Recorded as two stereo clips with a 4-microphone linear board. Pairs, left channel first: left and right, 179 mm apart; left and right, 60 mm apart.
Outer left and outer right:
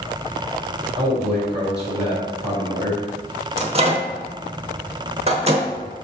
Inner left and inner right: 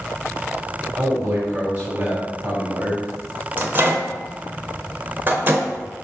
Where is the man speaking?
35° right (ahead or behind), 3 m.